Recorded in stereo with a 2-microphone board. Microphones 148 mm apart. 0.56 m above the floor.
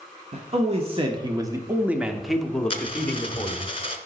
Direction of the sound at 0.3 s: 50° right (ahead or behind).